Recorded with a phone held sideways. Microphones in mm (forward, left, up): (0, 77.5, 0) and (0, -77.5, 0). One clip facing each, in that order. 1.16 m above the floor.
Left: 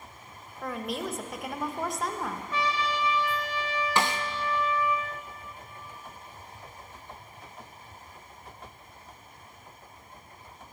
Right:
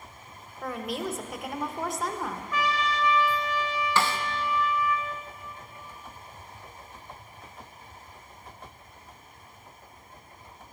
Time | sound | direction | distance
0.6 | a woman speaking | centre (ahead or behind) | 0.9 m
2.5 | a trumpet | 30° left (ahead or behind) | 1.5 m
4.0 | a snare drum | 20° left (ahead or behind) | 0.6 m